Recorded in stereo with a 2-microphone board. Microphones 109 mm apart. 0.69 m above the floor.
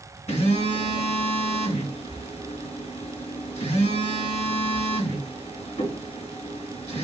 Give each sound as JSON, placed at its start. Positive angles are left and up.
{"t": 0.3, "sound": "a phone buzzing", "side_deg": 85, "distance_m": 2.5}